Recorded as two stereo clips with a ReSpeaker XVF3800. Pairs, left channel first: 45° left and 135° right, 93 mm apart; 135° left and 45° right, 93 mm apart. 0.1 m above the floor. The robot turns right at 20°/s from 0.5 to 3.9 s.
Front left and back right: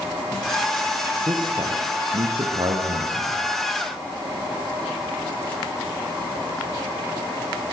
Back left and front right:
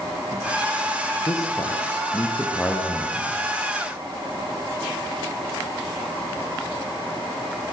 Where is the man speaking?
175° right, 5.5 m; by 3.4 s 135° right, 5.5 m.